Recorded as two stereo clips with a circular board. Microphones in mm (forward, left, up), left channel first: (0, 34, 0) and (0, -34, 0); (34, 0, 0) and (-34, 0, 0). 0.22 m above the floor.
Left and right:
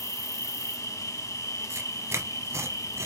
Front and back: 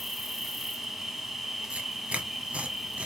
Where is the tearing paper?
115° right, 0.8 m.